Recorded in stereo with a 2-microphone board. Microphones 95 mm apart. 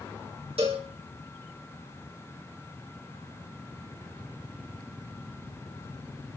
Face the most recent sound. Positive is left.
turn(degrees=-85)